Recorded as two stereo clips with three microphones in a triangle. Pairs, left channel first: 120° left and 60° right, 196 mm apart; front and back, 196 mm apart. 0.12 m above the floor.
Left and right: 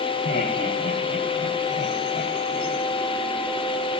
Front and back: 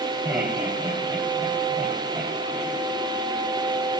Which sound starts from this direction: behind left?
Laughter, at 0.2 s.